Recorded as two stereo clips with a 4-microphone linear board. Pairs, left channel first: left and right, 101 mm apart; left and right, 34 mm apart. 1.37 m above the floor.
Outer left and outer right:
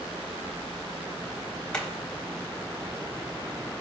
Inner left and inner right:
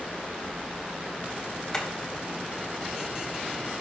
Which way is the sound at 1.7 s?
10° left (ahead or behind).